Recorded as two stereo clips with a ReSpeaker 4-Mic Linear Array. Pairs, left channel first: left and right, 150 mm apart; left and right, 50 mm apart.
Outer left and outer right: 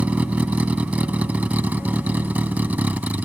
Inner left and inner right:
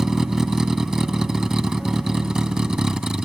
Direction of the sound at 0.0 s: 10° right (ahead or behind).